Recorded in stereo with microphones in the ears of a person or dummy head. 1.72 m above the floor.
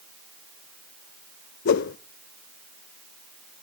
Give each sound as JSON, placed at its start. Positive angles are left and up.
{"t": 1.6, "sound": "a whoosh", "side_deg": 55, "distance_m": 0.6}